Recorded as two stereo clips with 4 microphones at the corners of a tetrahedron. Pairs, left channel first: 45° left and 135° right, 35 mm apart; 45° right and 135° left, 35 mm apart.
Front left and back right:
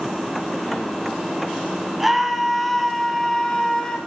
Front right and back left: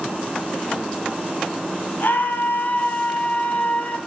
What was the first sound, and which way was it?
A scream, 50° right.